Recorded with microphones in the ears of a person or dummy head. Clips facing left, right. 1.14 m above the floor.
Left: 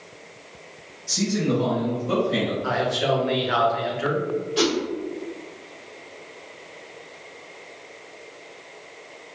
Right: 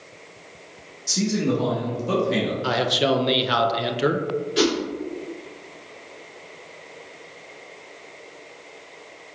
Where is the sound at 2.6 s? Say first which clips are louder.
Right 1 dB; 45° right (ahead or behind), 0.6 m.